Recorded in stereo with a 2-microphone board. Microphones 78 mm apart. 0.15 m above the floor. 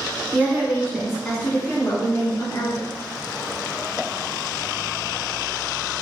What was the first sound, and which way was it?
A woman speaking, 25° right (ahead or behind).